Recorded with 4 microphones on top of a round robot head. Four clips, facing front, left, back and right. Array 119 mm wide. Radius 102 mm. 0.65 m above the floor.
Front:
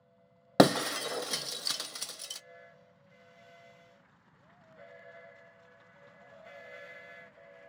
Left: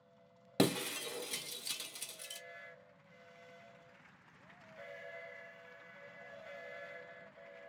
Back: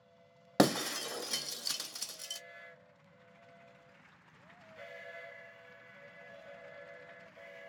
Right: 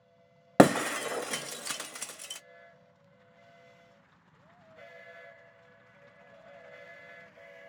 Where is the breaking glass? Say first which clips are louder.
Right 12 dB, front 5 dB; 65° right, 0.6 m.